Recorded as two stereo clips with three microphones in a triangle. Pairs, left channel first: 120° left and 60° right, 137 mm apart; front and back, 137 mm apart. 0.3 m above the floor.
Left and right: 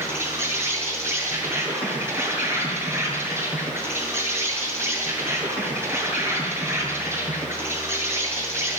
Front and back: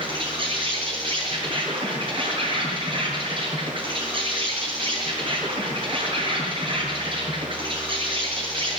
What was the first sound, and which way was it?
An insect, 130° right.